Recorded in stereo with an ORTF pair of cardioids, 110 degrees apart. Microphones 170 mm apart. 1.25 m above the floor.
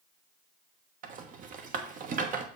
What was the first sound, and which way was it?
A rattle, 55° right.